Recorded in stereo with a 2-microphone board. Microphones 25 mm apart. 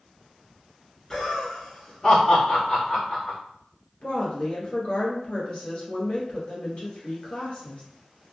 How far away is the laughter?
About 1.4 m.